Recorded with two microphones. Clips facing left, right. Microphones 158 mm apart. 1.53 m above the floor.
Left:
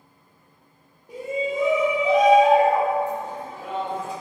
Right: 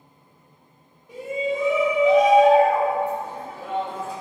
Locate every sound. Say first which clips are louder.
1.1 s a shout: right 1 dB; 35° left (ahead or behind), 0.9 m; by 4.1 s 10° right (ahead or behind), 2.5 m